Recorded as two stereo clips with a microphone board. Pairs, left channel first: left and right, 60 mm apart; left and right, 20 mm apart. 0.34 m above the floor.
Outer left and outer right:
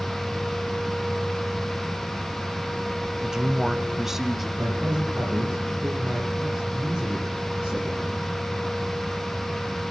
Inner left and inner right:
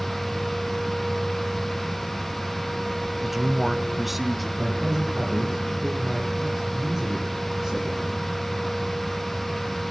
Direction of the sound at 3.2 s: 10° right (ahead or behind).